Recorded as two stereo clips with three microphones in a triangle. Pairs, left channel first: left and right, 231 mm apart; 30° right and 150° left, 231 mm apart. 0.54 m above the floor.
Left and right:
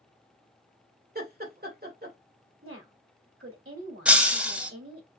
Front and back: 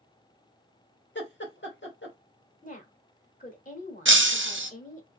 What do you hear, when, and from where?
1.1 s laughter: 50° right, 1.5 m
2.6 s a woman speaking: 85° right, 1.6 m
4.0 s breaking glass: 175° right, 0.7 m